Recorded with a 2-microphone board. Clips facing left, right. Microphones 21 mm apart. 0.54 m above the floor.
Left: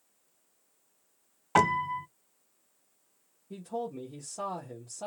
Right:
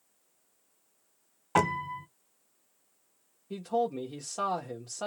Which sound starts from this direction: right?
A man speaking, at 3.5 s.